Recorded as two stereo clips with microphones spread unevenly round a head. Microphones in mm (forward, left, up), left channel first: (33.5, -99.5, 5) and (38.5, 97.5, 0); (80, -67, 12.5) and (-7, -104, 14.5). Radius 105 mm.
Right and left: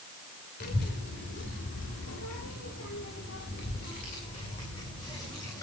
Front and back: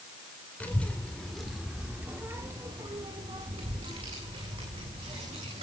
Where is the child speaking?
50° right, 2.5 m; by 5.6 s 165° right, 3.5 m.